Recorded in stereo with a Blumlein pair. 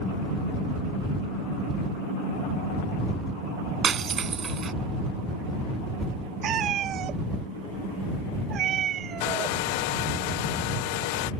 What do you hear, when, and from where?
3.8 s breaking glass: 20° right
6.4 s a cat meowing: 30° right
9.2 s a hair dryer: 45° left